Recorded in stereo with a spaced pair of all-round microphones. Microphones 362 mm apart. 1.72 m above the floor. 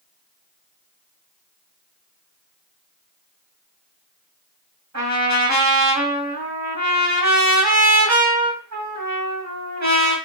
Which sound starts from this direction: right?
A trumpet, at 4.9 s.